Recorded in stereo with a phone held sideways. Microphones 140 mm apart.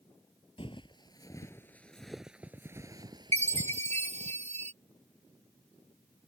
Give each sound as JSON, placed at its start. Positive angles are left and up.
{"t": 0.6, "sound": "footsteps", "side_deg": 40}
{"t": 3.3, "sound": "a chime", "side_deg": -50}